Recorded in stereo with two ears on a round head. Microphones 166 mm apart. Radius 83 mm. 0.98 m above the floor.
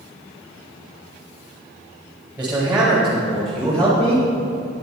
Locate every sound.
2.4 s a man speaking: 10° right (ahead or behind), 4.5 m; by 4.3 s 10° left (ahead or behind), 5 m